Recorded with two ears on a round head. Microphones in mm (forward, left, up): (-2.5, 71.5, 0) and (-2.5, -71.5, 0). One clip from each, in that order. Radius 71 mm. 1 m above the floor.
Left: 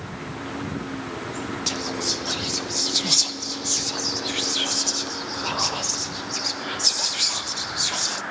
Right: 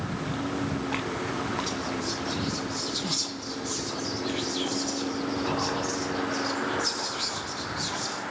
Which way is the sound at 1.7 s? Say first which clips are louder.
Left 5 dB; 55° left (ahead or behind).